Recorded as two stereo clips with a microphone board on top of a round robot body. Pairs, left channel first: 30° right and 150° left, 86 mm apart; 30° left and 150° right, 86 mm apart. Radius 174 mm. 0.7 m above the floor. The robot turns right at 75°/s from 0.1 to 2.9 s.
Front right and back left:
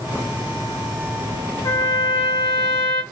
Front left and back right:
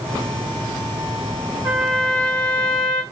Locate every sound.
1.6 s a trumpet: 65° right, 0.9 m; by 3.0 s 30° left, 0.9 m